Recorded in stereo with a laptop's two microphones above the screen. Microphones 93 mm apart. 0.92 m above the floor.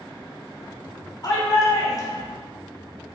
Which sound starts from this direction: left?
A shout, at 1.2 s.